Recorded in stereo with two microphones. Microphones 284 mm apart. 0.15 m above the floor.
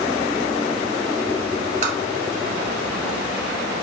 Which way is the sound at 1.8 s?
25° right (ahead or behind).